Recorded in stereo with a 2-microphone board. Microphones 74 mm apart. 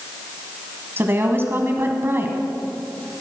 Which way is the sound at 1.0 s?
35° right (ahead or behind).